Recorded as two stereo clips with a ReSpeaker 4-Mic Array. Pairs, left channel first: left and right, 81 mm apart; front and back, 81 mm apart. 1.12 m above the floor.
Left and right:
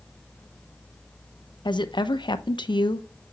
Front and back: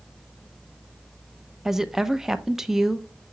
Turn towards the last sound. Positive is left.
turn(degrees=95)